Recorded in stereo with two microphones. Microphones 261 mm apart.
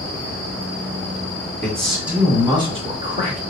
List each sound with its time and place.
1.6 s a man speaking: 10° left (ahead or behind), 1.5 m; by 3.4 s 30° right (ahead or behind), 2 m